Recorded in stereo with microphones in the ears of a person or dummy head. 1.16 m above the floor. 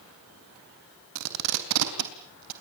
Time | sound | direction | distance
1.1 | tape being pulled | 70° right (ahead or behind) | 3 m